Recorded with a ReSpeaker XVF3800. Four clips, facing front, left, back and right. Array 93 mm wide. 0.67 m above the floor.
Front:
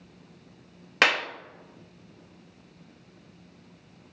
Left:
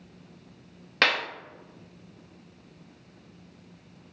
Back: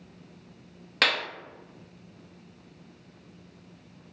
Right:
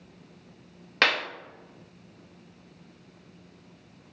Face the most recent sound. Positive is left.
turn(degrees=-5)